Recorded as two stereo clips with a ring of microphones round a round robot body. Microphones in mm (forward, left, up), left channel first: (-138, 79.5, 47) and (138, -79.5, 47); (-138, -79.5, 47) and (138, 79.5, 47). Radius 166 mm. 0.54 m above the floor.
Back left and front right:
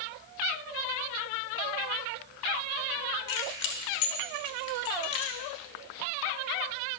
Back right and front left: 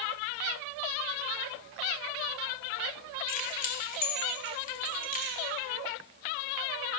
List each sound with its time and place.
3.3 s keys jangling: 145° left, 1.5 m